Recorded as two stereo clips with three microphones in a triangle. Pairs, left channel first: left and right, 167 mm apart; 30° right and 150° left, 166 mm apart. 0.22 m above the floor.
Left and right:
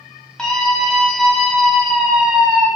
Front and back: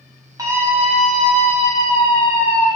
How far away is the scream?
About 1.7 m.